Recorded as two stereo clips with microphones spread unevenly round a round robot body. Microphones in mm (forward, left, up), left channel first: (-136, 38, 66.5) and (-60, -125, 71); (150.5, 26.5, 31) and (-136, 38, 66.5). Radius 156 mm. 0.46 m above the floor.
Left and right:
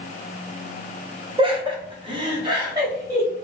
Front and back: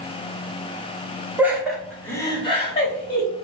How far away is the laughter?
About 1.3 m.